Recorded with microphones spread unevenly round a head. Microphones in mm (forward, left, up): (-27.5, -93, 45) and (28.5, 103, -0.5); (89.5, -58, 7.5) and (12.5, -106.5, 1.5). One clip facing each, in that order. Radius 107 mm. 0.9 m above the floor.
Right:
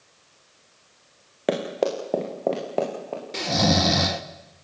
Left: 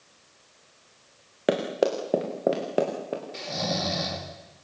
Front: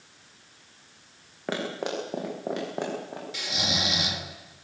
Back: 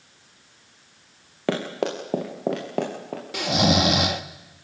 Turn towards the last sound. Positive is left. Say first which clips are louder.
# right 13 dB, back 13 dB
turn(degrees=-125)